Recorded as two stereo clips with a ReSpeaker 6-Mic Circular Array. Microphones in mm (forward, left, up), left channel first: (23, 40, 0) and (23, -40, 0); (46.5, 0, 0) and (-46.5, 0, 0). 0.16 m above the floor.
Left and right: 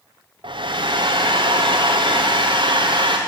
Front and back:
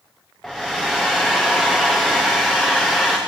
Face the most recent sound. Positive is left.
turn(degrees=-85)